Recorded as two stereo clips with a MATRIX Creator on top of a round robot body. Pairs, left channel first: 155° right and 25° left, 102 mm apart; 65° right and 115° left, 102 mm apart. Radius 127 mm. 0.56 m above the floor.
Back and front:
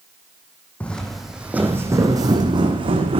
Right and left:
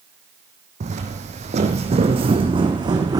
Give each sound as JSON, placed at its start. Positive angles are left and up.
{"t": 0.8, "sound": "footsteps", "azimuth_deg": 125, "distance_m": 1.2}